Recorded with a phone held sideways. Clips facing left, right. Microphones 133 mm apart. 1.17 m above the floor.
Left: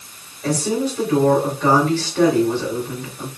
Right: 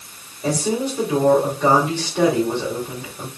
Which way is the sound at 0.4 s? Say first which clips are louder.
Left 1 dB; 15° right (ahead or behind).